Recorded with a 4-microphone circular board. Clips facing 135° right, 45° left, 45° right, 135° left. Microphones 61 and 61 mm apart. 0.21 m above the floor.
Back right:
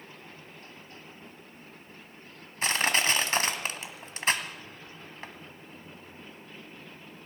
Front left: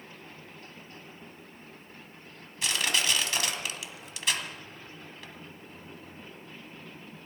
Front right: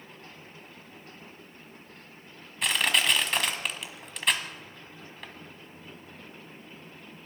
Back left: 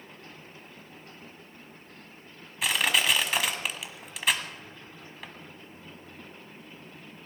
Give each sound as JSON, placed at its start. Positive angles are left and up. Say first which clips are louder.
{"t": 2.6, "sound": "crushing", "louder": "back right 3 dB, even", "azimuth_deg": -140, "distance_m": 1.4}